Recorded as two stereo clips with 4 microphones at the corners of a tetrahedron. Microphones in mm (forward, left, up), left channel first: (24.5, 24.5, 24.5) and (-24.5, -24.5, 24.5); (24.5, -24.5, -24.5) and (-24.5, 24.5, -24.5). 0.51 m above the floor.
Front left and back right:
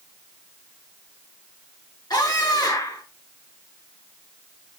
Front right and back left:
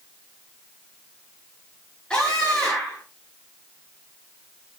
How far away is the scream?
About 7 m.